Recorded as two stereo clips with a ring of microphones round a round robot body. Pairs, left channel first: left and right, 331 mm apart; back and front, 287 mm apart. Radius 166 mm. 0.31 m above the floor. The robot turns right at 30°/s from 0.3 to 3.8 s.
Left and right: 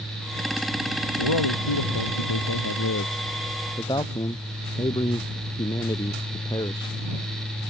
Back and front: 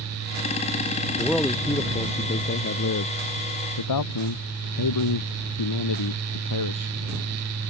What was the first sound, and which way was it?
A man speaking, 90° left.